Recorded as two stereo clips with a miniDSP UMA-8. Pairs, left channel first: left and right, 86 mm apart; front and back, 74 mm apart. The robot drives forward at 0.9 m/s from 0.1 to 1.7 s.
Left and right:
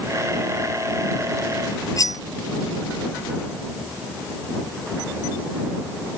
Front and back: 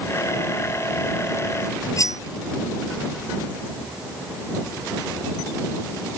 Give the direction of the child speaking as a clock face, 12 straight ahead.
No child speaking in this recording.